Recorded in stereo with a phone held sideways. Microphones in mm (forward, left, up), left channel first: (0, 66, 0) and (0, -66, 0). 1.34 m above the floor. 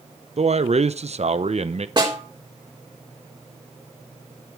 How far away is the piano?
No piano in this recording.